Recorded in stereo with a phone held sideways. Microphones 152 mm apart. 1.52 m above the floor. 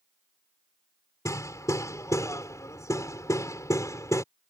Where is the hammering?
20° left (ahead or behind).